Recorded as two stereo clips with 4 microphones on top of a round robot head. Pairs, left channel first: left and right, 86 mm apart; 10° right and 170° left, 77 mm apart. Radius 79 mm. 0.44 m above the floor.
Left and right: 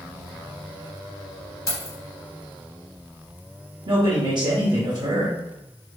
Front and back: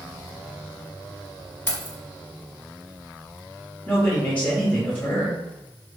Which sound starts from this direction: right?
A man speaking, at 3.9 s.